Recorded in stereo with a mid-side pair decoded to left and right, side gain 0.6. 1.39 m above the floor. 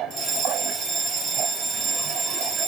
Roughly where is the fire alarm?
Ahead right.